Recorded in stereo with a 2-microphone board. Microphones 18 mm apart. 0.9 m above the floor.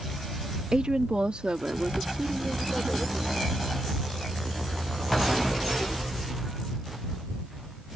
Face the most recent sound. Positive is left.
turn(degrees=-75)  # may be behind; listen again after turning